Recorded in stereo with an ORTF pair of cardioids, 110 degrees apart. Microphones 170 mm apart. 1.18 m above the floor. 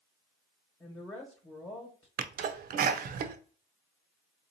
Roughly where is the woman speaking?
Ahead.